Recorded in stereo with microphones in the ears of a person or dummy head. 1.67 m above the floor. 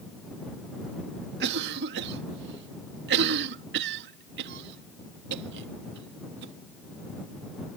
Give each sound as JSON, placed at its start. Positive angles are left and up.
{"t": 1.4, "sound": "a cough", "side_deg": -60}